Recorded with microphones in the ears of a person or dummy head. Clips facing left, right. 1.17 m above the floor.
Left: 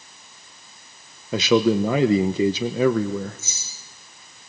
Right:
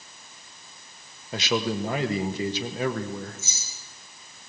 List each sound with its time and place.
1.3 s a man speaking: 55° left (ahead or behind), 0.9 m
3.4 s keys jangling: 85° right, 8 m